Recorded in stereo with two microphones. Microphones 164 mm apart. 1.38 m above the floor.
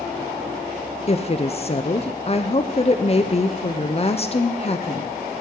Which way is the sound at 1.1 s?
35° left (ahead or behind).